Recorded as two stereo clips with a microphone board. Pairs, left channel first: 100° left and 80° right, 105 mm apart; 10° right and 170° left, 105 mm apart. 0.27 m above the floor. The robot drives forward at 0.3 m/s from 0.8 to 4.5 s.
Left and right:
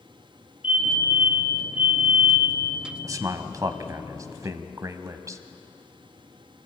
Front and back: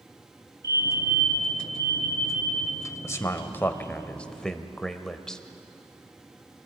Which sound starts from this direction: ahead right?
A man speaking, at 3.0 s.